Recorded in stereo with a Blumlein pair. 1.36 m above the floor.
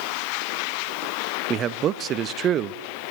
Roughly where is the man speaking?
Ahead right.